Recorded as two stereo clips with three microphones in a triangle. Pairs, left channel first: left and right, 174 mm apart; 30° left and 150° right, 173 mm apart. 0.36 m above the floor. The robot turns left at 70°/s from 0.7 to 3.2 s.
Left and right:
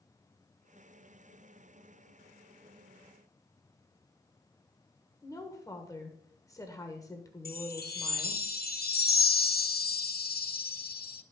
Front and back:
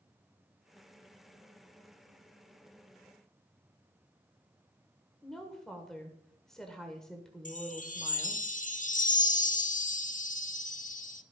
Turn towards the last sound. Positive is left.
turn(degrees=70)